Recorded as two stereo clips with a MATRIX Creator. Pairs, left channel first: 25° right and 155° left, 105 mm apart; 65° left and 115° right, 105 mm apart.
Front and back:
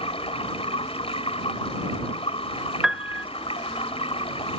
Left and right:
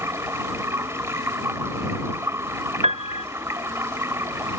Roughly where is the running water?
Ahead right.